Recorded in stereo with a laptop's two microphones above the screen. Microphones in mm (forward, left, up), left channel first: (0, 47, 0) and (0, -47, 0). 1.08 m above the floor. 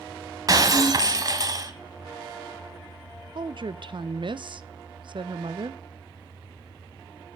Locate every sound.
0.5 s breaking glass: 40° right (ahead or behind), 1.1 m
3.4 s a woman speaking: 55° right (ahead or behind), 0.5 m